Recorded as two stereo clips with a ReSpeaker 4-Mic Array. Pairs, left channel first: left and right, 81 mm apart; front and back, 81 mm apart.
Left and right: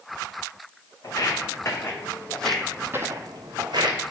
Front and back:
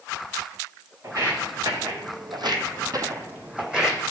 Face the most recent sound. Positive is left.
turn(degrees=-95)